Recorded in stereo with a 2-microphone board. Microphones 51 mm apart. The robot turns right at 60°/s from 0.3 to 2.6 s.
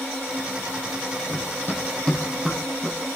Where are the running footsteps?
55° left (ahead or behind), 2.5 m; by 3.2 s 20° right (ahead or behind), 5 m.